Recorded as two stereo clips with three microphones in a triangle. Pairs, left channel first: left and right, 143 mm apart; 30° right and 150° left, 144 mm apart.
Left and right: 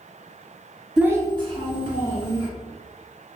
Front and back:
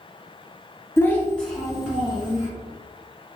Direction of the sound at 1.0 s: 15° right.